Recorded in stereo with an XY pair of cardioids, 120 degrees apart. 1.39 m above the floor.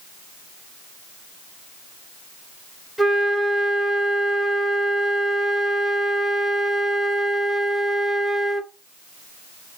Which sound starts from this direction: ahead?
A flute, at 3.0 s.